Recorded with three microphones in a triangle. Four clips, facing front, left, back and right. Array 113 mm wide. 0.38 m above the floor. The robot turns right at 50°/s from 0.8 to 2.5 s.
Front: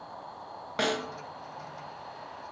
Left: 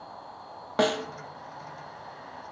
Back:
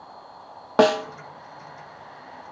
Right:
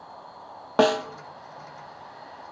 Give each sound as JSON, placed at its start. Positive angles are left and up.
{"t": 0.8, "sound": "a snare drum", "azimuth_deg": -155, "distance_m": 0.7}